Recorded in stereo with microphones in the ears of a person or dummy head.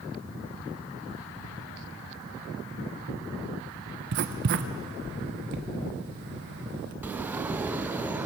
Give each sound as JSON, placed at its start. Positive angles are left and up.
{"t": 4.1, "sound": "writing", "side_deg": -60, "distance_m": 0.9}
{"t": 7.0, "sound": "a sliding door", "side_deg": -10, "distance_m": 0.6}